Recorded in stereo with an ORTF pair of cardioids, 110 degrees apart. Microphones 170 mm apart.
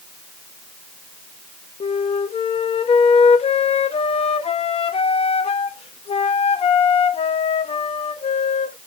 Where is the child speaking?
No child speaking in this recording.